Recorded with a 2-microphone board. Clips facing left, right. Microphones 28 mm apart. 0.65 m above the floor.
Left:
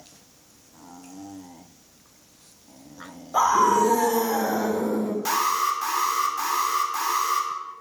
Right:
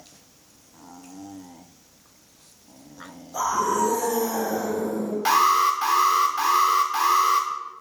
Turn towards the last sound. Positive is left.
turn(degrees=-50)  # may be behind; listen again after turning